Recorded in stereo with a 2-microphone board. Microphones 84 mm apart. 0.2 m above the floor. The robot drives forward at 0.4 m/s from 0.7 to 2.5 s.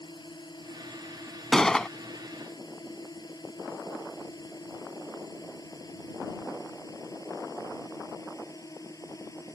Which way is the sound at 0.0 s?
60° left (ahead or behind).